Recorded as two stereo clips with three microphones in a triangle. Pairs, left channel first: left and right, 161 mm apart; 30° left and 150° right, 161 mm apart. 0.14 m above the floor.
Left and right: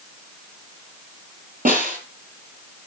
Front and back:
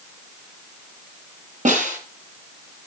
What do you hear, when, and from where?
1.6 s a snare drum: 115° right, 4.5 m